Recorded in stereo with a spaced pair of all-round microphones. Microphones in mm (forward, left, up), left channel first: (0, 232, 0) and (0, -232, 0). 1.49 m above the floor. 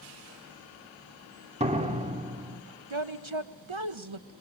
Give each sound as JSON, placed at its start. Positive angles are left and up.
{"t": 1.6, "sound": "a door slam", "side_deg": -15, "distance_m": 2.5}
{"t": 2.9, "sound": "a woman speaking", "side_deg": -85, "distance_m": 1.5}